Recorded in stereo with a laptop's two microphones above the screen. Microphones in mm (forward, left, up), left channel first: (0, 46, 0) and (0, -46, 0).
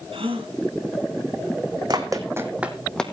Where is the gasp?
80° right, 3 m.